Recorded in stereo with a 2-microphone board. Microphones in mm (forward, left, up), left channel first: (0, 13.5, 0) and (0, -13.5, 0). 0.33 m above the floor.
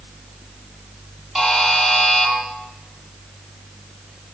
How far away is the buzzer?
About 7.5 m.